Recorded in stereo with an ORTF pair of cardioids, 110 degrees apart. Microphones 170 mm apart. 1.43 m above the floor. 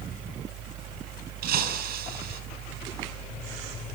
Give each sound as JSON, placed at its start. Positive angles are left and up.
{"t": 0.0, "sound": "a fan", "azimuth_deg": -60, "distance_m": 2.5}
{"t": 1.4, "sound": "breaking glass", "azimuth_deg": -70, "distance_m": 5.5}